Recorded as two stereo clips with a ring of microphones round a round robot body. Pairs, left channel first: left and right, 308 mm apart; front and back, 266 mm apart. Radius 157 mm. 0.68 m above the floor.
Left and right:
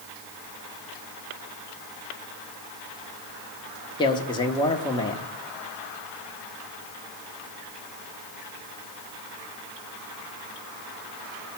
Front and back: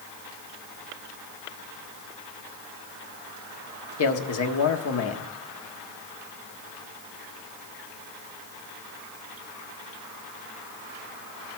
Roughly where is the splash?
No splash in this recording.